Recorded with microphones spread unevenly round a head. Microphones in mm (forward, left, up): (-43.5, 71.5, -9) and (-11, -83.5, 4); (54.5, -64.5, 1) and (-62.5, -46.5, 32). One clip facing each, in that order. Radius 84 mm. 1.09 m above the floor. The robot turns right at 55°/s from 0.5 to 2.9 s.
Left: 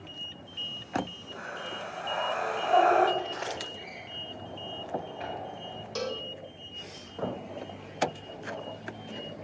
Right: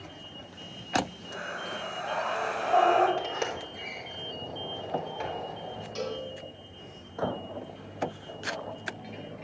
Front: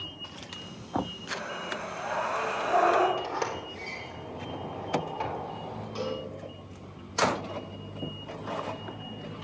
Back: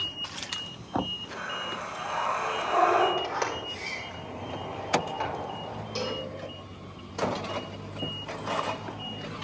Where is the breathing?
70° right, 4.5 m; by 3.1 s 15° left, 4.5 m.